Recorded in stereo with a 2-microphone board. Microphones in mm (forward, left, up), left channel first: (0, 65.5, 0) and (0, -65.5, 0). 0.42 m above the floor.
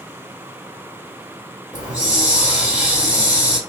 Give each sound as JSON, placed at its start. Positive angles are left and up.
{"t": 1.7, "sound": "a hiss", "side_deg": 65, "distance_m": 1.6}